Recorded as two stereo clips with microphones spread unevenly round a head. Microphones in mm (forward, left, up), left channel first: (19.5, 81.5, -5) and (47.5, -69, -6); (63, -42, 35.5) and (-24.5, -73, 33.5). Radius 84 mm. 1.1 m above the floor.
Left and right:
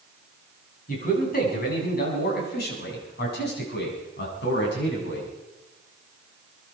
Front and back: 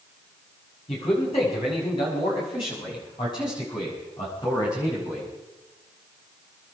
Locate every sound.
0.9 s a man speaking: 65° left, 7 m; by 5.3 s 90° left, 8 m